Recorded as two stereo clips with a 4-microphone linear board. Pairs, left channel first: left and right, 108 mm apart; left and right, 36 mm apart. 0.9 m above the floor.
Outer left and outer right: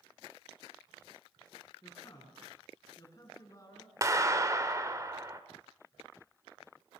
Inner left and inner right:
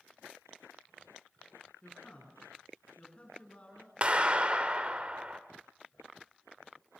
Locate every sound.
1.8 s a man speaking: 30° left (ahead or behind), 9 m
4.0 s a clap: 30° right (ahead or behind), 2.0 m